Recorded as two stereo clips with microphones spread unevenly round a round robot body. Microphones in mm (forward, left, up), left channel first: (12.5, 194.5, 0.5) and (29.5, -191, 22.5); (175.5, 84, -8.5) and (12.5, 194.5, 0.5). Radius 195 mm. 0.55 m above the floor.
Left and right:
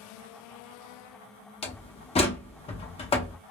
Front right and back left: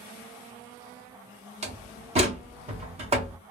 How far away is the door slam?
About 0.6 m.